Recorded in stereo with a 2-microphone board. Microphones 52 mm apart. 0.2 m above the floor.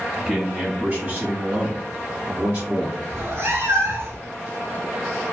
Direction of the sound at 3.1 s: 55° right (ahead or behind).